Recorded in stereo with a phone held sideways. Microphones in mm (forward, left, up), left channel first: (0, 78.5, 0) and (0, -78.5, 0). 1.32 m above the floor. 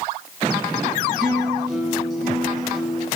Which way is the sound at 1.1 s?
Centre (ahead or behind).